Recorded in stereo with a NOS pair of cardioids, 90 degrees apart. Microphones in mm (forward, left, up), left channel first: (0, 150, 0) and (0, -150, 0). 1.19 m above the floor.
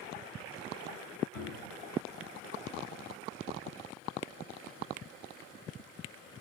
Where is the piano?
40° left, 3 m.